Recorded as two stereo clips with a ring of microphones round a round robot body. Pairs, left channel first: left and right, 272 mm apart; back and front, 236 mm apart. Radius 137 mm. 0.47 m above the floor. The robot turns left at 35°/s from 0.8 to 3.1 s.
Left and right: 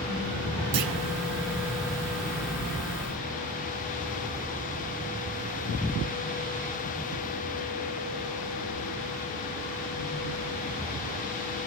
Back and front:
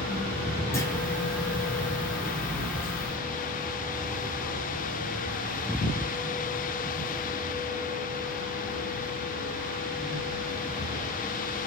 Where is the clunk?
100° right, 1.3 m; by 0.9 s 105° right, 1.3 m.